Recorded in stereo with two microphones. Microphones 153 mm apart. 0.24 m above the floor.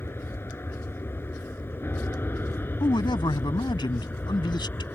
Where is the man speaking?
30° left (ahead or behind).